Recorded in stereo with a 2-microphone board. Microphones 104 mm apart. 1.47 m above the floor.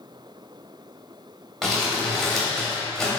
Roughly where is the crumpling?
Centre.